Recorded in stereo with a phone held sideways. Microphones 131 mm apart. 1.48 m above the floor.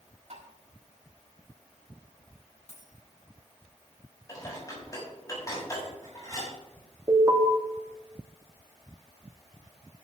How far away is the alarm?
About 2.5 m.